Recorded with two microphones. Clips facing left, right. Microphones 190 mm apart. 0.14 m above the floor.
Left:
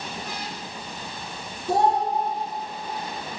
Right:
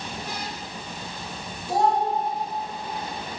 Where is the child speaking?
55° left (ahead or behind), 1.4 m.